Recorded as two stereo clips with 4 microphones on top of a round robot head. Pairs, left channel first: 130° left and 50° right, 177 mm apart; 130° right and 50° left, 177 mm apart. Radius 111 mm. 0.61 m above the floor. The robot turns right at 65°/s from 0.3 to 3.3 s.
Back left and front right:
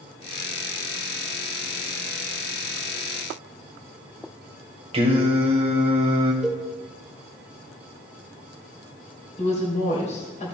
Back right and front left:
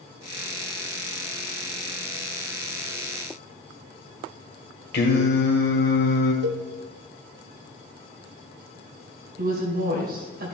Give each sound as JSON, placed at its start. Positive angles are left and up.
{"t": 4.9, "sound": "singing", "azimuth_deg": -105, "distance_m": 1.8}
{"t": 6.4, "sound": "a cowbell", "azimuth_deg": 35, "distance_m": 0.8}
{"t": 9.4, "sound": "a woman speaking", "azimuth_deg": 80, "distance_m": 2.5}